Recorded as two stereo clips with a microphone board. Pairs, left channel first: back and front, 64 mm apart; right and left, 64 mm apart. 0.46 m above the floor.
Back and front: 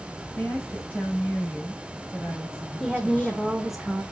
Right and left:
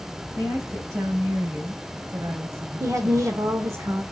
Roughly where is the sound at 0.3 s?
Behind left.